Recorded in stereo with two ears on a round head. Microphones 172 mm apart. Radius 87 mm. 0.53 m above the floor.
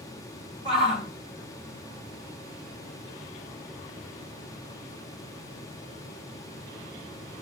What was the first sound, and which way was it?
A shout, 25° left (ahead or behind).